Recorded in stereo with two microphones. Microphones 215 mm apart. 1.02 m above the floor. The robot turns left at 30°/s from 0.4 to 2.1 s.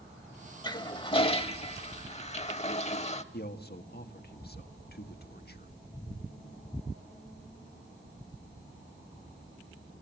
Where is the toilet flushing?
140° left, 0.9 m; by 3.2 s 95° left, 0.9 m.